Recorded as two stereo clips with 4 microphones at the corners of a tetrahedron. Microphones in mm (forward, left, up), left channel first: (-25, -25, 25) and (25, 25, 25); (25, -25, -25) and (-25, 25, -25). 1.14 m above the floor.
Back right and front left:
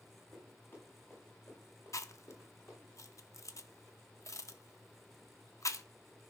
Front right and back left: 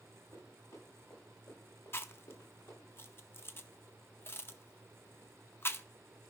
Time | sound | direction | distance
0.3 | running footsteps | 80° right | 6.5 m
1.9 | chewing | 95° right | 0.6 m